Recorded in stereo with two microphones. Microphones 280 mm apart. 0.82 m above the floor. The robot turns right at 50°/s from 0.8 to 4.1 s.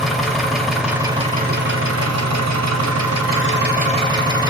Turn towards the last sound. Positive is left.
turn(degrees=-15)